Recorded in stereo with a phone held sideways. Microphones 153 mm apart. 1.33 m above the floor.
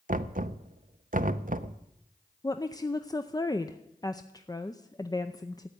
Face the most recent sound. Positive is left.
turn(degrees=25)  # may be behind; listen again after turning